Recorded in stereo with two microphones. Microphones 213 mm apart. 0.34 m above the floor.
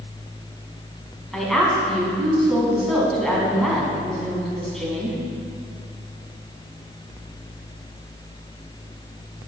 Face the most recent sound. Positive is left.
turn(degrees=0)  # may be behind; listen again after turning